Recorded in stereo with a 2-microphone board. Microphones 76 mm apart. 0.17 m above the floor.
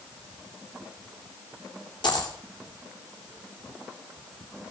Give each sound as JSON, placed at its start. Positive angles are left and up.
{"t": 2.0, "sound": "a dropped coin", "side_deg": 70, "distance_m": 3.5}